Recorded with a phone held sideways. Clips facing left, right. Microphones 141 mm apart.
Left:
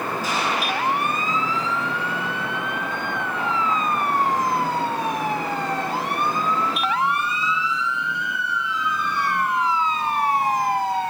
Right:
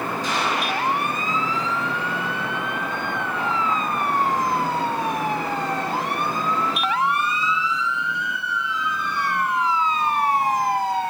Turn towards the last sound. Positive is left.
turn(degrees=5)  # may be behind; listen again after turning